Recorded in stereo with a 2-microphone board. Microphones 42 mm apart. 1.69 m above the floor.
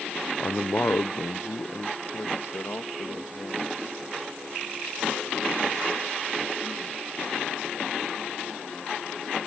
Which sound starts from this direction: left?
A man speaking, at 0.4 s.